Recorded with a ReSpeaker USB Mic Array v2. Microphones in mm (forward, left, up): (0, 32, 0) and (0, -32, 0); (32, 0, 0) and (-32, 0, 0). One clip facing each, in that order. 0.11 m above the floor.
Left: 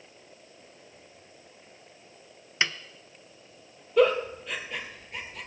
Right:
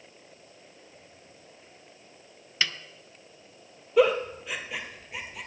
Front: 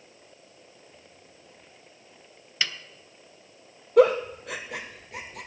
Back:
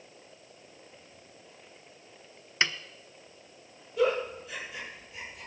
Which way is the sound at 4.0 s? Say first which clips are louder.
Even, front 8 dB; 5° right.